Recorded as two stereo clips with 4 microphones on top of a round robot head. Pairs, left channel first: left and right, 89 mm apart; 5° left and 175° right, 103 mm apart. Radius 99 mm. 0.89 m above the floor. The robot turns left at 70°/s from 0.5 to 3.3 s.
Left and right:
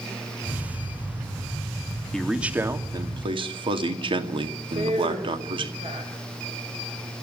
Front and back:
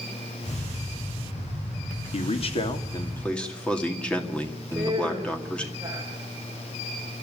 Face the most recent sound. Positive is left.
turn(degrees=-105)